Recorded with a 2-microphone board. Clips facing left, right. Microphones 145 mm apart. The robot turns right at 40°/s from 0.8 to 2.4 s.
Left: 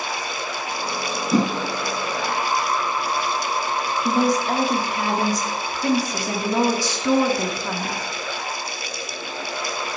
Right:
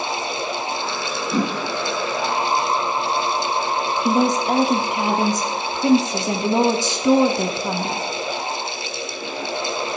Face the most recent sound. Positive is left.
turn(degrees=-20)  # may be behind; listen again after turning